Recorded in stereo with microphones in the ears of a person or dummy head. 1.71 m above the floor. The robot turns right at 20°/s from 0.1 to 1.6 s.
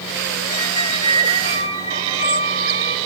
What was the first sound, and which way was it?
A squeak, 45° left (ahead or behind).